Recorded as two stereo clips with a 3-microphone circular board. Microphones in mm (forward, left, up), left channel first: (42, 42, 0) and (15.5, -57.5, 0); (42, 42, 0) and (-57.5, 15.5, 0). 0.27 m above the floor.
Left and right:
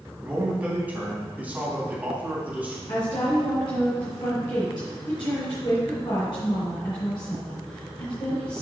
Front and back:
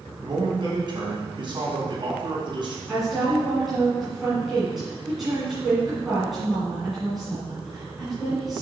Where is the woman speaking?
105° left, 3 m.